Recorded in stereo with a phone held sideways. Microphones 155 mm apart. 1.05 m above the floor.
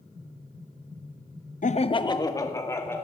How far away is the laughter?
About 0.6 m.